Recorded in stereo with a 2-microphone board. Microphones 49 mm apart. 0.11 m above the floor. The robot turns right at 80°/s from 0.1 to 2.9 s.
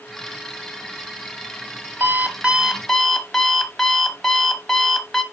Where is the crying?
No crying in this recording.